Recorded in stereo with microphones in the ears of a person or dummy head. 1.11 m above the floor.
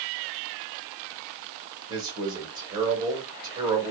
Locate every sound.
1.9 s a man speaking: 20° right (ahead or behind), 1.9 m